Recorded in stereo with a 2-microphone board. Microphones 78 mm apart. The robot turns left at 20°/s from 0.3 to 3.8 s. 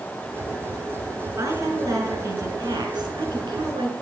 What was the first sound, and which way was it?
A woman speaking, 40° right.